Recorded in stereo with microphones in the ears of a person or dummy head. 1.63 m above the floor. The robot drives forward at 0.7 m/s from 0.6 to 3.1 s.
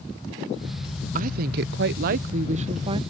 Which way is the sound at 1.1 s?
50° right (ahead or behind).